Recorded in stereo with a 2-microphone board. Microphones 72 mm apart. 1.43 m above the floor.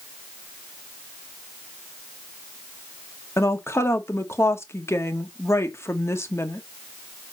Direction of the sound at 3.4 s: 40° left (ahead or behind).